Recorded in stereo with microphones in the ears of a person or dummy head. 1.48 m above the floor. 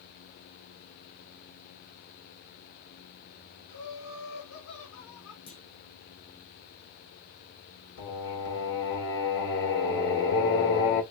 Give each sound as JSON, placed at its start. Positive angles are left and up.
{"t": 3.7, "sound": "laughter", "side_deg": 80, "distance_m": 2.0}
{"t": 5.5, "sound": "a clunk", "side_deg": 60, "distance_m": 1.5}
{"t": 8.0, "sound": "singing", "side_deg": 65, "distance_m": 2.0}